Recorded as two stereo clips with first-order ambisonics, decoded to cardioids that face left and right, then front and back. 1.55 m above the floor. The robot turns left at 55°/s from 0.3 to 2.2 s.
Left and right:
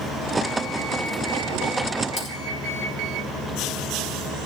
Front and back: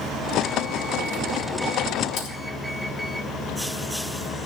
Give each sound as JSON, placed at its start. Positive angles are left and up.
{"t": 2.2, "sound": "typing on a keyboard", "azimuth_deg": 45, "distance_m": 4.5}